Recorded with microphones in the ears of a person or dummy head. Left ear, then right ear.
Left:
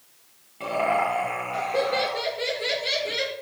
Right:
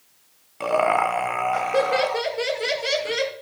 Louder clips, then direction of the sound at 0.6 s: Right 4 dB; 45° right (ahead or behind).